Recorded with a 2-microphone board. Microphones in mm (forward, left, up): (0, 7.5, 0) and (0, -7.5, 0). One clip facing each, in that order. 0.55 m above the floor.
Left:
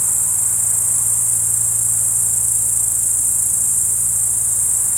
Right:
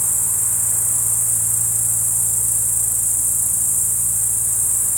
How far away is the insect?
About 1.6 m.